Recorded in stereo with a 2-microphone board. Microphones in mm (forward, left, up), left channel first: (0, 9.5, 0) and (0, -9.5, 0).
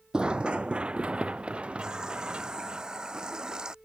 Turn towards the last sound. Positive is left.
turn(degrees=-45)  # may be behind; listen again after turning